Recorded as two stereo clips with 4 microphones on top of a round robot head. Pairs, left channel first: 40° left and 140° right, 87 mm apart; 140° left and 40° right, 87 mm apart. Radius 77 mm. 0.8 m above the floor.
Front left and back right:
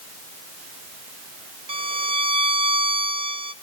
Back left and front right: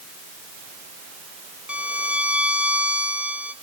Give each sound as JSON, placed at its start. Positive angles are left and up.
{"t": 1.7, "sound": "a violin", "azimuth_deg": -115, "distance_m": 0.7}